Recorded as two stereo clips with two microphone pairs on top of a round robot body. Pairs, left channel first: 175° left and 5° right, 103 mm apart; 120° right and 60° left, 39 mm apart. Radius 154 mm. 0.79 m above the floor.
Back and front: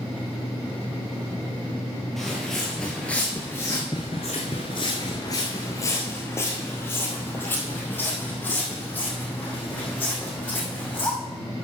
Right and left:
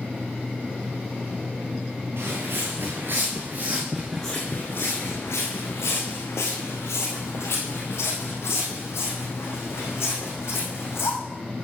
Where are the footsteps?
90° left, 1.5 m; by 11.1 s 110° right, 4 m.